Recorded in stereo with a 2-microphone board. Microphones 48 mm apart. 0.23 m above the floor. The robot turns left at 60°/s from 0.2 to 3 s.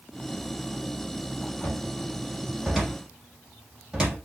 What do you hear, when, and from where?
1.6 s a cupboard door: 60° left (ahead or behind), 7.5 m; by 4.2 s 25° right (ahead or behind), 7.5 m